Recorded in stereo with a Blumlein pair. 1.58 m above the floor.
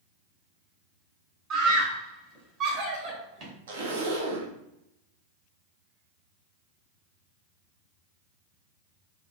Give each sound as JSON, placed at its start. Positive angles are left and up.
{"t": 1.5, "sound": "a scream", "azimuth_deg": -35, "distance_m": 1.6}
{"t": 3.7, "sound": "a zipper", "azimuth_deg": -60, "distance_m": 0.8}